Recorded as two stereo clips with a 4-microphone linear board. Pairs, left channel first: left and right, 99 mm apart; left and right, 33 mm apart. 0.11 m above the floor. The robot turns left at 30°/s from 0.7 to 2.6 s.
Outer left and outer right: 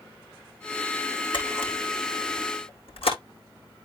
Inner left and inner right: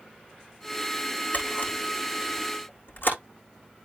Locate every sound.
1.3 s a camera shutter: 55° left (ahead or behind), 4.5 m; by 3.2 s 75° left (ahead or behind), 4.5 m